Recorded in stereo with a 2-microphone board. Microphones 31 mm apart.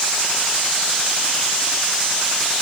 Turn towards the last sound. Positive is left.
No sound to turn to.